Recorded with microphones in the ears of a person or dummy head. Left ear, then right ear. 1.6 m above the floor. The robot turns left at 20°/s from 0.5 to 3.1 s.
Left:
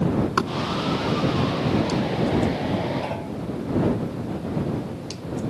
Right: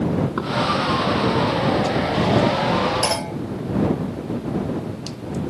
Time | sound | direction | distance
0.4 | knocking | 75° left (ahead or behind) | ?
3.0 | a clunk | 75° right (ahead or behind) | ?